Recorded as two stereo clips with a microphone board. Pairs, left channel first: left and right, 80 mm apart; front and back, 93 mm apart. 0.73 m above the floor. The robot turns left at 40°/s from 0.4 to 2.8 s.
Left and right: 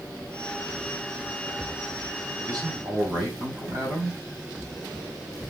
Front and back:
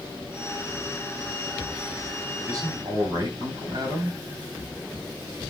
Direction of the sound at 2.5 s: 125° right.